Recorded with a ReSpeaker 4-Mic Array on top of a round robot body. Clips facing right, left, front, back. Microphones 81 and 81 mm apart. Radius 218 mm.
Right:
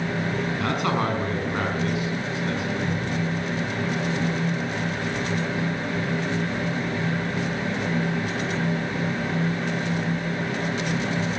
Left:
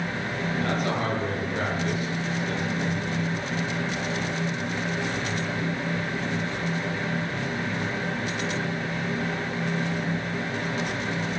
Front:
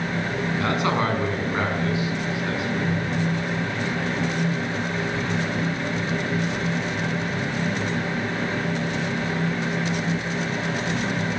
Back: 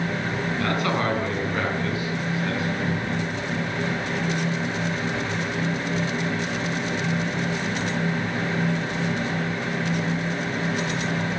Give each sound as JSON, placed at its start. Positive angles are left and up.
{"t": 0.6, "sound": "a man speaking", "azimuth_deg": -70, "distance_m": 6.0}